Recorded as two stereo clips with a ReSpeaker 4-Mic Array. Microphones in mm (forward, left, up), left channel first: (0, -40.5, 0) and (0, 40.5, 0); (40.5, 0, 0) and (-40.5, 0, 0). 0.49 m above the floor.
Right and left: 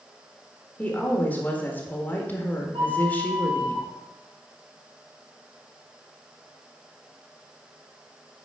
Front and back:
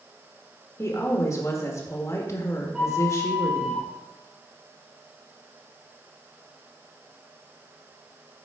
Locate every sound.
0.8 s a woman speaking: 30° right, 1.4 m
2.7 s a flute: 95° left, 3 m